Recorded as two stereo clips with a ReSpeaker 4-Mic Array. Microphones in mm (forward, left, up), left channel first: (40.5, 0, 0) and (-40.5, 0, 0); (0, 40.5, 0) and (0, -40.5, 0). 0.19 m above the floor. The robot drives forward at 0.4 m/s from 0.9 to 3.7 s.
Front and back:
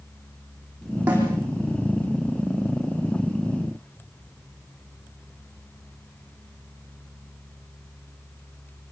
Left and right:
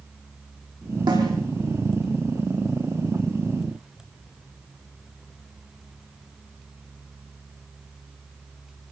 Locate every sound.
1.1 s a snare drum: 110° right, 10 m